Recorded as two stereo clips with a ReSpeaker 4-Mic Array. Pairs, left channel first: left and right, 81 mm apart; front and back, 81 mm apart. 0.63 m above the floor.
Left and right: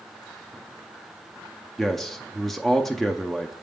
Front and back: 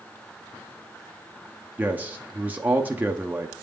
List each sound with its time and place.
1.8 s a man speaking: 170° left, 0.5 m